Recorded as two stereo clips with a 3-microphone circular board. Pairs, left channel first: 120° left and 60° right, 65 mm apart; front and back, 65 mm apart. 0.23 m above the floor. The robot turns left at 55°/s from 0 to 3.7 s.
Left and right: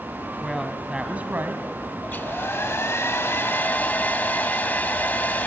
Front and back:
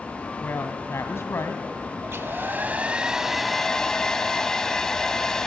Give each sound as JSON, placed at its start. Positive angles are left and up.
{"t": 0.4, "sound": "a woman speaking", "azimuth_deg": 40, "distance_m": 2.0}
{"t": 2.0, "sound": "a hair dryer", "azimuth_deg": 165, "distance_m": 0.7}